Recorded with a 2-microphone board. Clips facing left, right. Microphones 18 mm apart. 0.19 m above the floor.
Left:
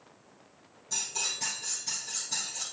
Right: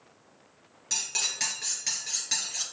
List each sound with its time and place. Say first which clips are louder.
0.9 s cutlery clinking: right 3 dB; 55° right (ahead or behind), 1.9 m